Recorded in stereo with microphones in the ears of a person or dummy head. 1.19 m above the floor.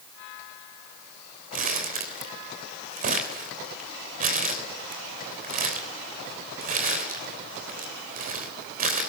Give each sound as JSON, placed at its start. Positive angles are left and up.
{"t": 1.5, "sound": "crumpling", "side_deg": -45, "distance_m": 3.0}